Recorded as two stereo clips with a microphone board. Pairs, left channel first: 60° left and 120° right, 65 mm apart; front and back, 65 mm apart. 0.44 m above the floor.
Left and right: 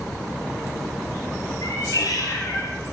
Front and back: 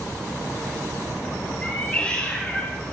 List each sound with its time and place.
1.6 s a cat meowing: 75° left, 6.5 m